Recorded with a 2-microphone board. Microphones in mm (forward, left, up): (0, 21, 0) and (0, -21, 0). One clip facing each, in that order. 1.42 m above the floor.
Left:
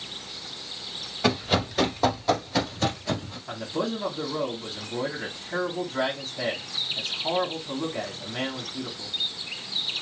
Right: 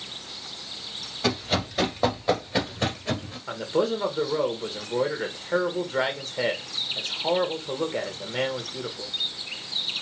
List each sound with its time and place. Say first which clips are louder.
1.2 s running footsteps: left 2 dB; 10° left (ahead or behind), 1.4 m; by 3.4 s 35° right (ahead or behind), 1.7 m
3.5 s a man speaking: right 5 dB; 70° right (ahead or behind), 1.4 m